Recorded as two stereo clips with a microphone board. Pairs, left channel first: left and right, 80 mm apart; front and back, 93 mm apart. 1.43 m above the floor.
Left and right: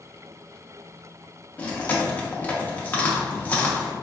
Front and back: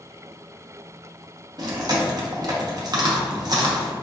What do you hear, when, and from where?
1.6 s chewing: 155° left, 0.7 m